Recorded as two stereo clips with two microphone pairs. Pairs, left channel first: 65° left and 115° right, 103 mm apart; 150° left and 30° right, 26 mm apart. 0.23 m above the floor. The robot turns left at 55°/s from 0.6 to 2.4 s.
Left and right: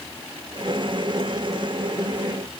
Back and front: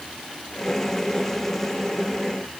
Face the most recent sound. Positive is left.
No sound to turn to.